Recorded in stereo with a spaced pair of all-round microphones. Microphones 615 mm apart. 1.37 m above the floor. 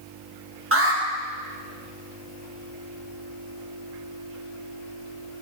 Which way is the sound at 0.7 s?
20° right (ahead or behind).